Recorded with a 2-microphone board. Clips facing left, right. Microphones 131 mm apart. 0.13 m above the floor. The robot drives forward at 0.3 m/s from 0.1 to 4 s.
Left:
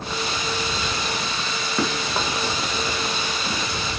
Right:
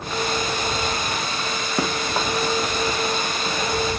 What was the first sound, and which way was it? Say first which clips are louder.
Running footsteps: right 1 dB; 15° right (ahead or behind).